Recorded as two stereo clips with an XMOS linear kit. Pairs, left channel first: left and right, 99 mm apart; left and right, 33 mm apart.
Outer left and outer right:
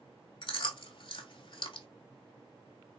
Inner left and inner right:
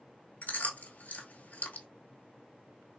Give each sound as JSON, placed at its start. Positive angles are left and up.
{"t": 0.4, "sound": "chewing", "side_deg": 55, "distance_m": 0.8}